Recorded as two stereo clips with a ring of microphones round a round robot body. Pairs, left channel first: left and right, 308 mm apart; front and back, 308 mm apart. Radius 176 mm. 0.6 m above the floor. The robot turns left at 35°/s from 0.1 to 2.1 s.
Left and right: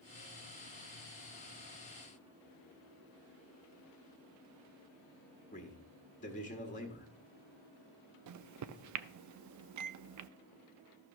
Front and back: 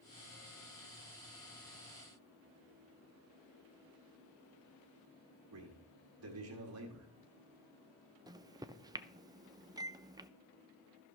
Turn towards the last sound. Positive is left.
turn(degrees=-105)